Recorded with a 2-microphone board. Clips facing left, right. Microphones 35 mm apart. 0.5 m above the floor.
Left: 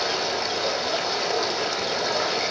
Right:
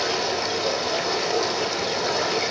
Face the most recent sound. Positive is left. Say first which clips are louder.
# right 1 dB
turn(degrees=15)  # may be behind; listen again after turning